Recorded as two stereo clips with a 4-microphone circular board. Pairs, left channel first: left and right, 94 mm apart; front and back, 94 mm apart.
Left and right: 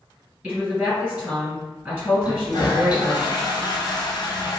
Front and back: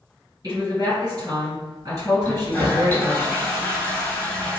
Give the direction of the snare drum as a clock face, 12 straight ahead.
I don't hear a snare drum.